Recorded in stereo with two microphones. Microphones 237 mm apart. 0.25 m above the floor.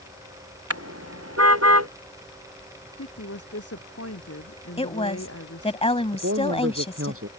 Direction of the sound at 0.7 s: 85° right.